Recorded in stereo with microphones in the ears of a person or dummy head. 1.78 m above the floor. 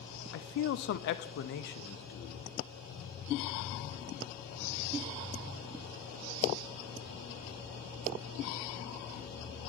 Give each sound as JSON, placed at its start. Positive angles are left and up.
{"t": 0.3, "sound": "a man speaking", "side_deg": 65, "distance_m": 0.5}